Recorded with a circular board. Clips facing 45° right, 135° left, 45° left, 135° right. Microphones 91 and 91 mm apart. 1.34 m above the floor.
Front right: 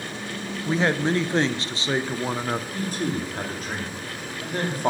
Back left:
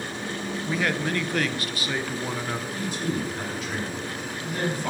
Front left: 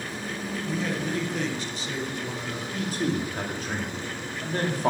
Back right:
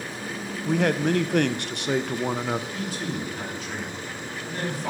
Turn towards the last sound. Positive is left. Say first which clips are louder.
# front right 1 dB, front left 3 dB
turn(degrees=0)